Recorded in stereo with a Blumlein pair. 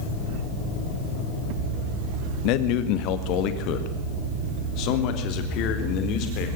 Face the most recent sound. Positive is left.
turn(degrees=40)